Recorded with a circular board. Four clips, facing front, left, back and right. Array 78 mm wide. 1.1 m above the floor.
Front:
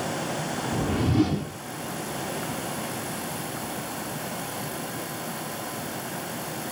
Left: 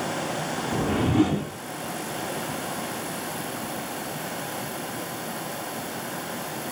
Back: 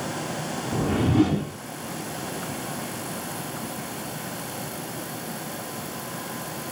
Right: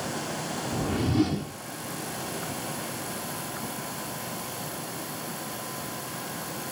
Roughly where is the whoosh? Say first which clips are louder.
Left 4 dB, back 3 dB; behind left.